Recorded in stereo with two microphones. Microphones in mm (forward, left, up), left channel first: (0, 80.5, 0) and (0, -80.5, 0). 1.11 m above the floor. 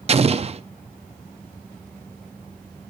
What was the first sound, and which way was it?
An explosion, 40° right (ahead or behind).